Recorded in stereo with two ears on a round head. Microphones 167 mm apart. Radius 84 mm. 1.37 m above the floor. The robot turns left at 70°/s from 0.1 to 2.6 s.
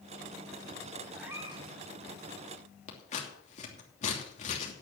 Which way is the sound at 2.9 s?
40° left (ahead or behind).